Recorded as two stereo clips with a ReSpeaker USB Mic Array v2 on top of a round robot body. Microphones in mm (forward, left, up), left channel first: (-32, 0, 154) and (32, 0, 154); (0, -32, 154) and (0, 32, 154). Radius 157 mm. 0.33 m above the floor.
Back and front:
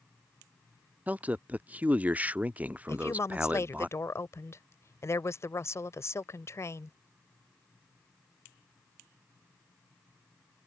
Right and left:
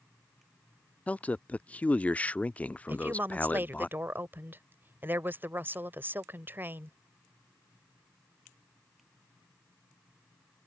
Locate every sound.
1.1 s a man speaking: 45° right
2.9 s a woman speaking: 145° left